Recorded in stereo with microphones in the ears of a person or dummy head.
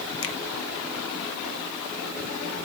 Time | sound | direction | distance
0.2 | a finger snap | 80° left | 1.2 m